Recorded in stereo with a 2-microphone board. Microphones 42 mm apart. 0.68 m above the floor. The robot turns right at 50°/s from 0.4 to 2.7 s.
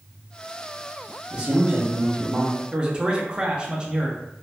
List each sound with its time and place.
1.3 s a man speaking: 130° right, 0.7 m; by 2.6 s 65° right, 0.7 m
2.7 s a man speaking: 25° right (ahead or behind), 0.5 m